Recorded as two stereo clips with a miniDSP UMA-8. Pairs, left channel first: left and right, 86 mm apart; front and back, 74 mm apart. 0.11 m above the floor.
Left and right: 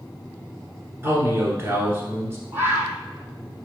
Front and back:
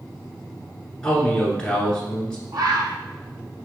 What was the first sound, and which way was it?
A man speaking, 70° right.